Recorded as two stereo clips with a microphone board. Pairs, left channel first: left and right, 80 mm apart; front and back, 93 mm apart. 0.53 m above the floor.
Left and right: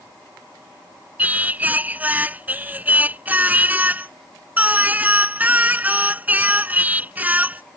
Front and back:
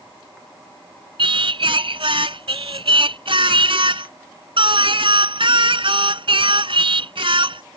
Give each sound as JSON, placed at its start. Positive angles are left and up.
{"t": 1.2, "sound": "singing", "azimuth_deg": -160}